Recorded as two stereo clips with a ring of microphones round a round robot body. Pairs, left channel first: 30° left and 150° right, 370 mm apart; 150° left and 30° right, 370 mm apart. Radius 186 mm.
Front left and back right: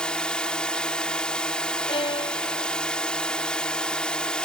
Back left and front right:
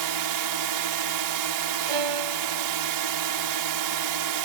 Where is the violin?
45° right.